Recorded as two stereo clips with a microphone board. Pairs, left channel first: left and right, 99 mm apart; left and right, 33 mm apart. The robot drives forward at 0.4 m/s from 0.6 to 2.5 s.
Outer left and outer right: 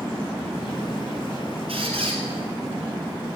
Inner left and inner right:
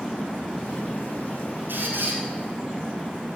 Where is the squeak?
75° right (ahead or behind), 2.5 m; by 2.2 s 70° right (ahead or behind), 2.5 m.